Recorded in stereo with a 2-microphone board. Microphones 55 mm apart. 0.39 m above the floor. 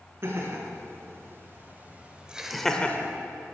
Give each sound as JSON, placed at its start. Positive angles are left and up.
{"t": 0.2, "sound": "laughter", "side_deg": -50, "distance_m": 4.0}